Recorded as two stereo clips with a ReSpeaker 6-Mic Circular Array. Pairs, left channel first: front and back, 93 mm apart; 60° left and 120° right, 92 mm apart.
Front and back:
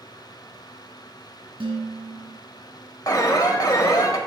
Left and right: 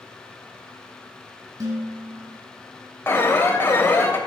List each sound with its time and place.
1.6 s dishes clattering: 165° right, 2 m
3.1 s an alarm: 10° left, 0.8 m